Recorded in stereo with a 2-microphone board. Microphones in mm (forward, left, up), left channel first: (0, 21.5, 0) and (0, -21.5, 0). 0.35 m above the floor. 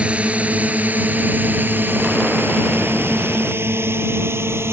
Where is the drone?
30° right (ahead or behind); by 4.7 s 70° right (ahead or behind).